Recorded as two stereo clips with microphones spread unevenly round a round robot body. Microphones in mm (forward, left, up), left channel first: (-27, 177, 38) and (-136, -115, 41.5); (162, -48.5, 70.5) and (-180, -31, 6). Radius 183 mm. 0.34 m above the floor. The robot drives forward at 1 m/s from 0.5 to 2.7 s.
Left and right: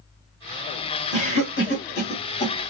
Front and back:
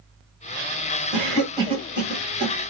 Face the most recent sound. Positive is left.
turn(degrees=140)